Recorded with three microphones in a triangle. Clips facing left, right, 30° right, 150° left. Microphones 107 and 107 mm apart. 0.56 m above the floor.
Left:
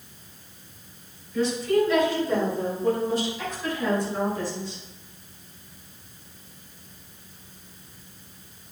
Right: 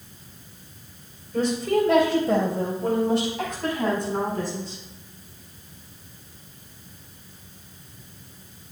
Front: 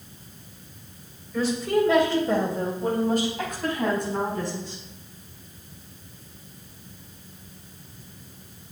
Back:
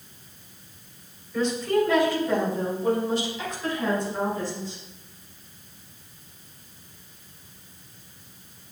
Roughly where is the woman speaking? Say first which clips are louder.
Even, even; behind right.